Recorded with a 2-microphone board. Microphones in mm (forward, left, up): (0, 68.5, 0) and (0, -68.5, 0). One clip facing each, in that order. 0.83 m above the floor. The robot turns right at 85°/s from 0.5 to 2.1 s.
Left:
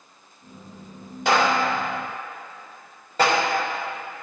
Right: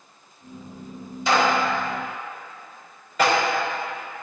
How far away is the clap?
About 2.5 m.